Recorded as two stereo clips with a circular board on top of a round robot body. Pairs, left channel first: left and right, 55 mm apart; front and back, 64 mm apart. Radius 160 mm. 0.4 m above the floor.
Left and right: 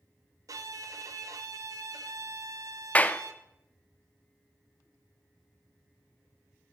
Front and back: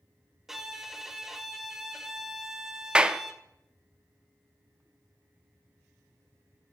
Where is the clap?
120° left, 0.7 m.